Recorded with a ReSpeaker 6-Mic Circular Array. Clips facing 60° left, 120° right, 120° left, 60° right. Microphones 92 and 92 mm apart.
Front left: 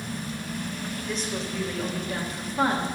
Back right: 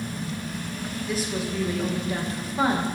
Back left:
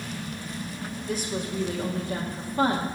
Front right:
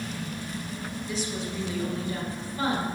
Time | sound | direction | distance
1.1 | a woman speaking | 155° left | 1.4 m